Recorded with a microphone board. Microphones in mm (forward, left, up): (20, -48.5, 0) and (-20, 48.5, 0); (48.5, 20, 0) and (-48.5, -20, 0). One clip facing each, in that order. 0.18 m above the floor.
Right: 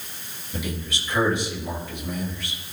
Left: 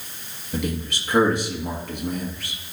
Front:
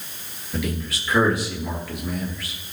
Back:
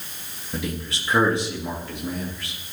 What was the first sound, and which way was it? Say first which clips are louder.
A man speaking: left 4 dB, front 2 dB; 140° left.